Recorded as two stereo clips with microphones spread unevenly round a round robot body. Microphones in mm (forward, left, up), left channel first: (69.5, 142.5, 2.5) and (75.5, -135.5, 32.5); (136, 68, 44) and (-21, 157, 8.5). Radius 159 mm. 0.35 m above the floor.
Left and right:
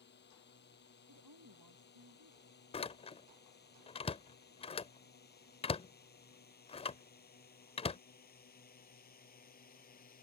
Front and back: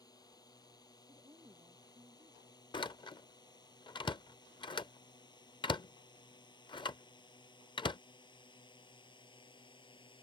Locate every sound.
0.0 s a drone: 40° left; by 10.2 s 35° left
1.1 s a woman speaking: 130° right
2.7 s a door slam: 40° left